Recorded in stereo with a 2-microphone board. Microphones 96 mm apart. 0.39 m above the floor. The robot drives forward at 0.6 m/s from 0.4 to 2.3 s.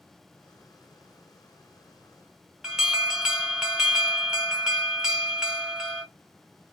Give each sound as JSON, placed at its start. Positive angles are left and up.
{"t": 2.6, "sound": "an alarm", "side_deg": -5, "distance_m": 0.8}